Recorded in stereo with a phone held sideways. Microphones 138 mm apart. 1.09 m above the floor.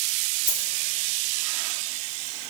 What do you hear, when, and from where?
0.5 s a dropped coin: 80° right, 5 m